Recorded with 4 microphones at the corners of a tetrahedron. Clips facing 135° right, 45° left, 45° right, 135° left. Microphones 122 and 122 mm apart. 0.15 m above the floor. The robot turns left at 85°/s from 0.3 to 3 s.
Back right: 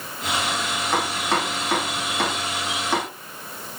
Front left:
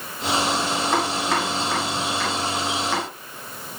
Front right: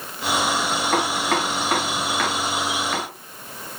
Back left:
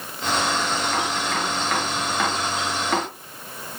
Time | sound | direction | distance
0.9 | chopping | 40° right | 5.5 m